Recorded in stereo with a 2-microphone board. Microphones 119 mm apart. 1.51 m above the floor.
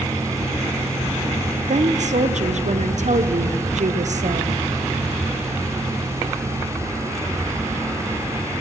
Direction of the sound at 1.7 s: 80° right.